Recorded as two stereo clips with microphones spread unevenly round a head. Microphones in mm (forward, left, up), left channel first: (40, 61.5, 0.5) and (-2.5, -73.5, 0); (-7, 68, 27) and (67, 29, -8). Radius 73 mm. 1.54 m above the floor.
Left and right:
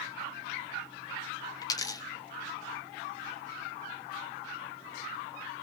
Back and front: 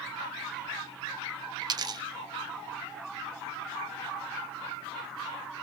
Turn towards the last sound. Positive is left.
turn(degrees=20)